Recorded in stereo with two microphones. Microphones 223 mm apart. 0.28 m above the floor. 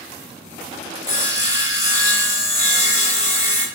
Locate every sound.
1.1 s sawing: 35° left (ahead or behind), 0.8 m